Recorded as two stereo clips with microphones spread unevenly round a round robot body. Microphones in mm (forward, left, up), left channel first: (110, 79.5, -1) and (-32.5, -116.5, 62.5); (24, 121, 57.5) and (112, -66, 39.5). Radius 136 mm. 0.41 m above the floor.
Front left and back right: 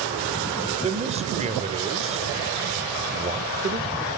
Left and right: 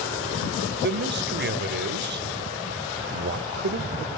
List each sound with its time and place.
0.8 s a man speaking: 55° right, 1.7 m